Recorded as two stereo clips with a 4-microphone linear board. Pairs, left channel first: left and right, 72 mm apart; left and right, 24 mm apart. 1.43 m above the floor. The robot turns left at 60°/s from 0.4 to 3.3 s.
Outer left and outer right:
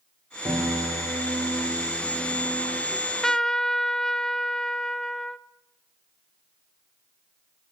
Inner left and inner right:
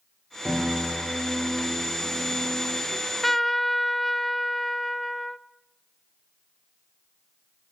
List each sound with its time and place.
0.5 s a piano: 80° right, 4 m; by 2.8 s 140° left, 4 m
2.9 s a trumpet: 5° right (ahead or behind), 0.7 m; by 5.4 s 5° left (ahead or behind), 0.7 m